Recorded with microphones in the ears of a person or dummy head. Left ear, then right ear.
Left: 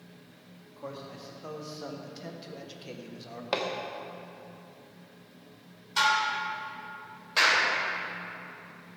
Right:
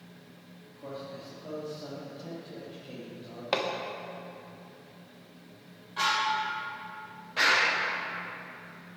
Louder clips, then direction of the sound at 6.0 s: Left 2 dB; 75° left (ahead or behind).